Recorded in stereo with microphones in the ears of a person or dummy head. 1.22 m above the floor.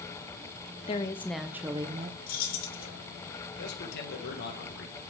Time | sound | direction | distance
0.9 | a woman speaking | 30° left (ahead or behind) | 0.6 m
2.3 | keys jangling | 50° left (ahead or behind) | 2.0 m
3.6 | a man speaking | 60° left (ahead or behind) | 1.4 m